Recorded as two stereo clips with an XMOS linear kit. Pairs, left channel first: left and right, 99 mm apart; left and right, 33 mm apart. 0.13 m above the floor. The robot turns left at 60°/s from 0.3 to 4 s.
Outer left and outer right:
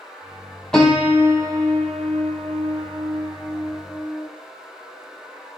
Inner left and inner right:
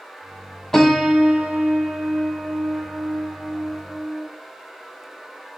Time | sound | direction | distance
0.7 | a piano | 5° left | 0.9 m